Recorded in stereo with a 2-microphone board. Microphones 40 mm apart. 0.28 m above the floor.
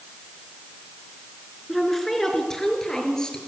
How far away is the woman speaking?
About 4.5 m.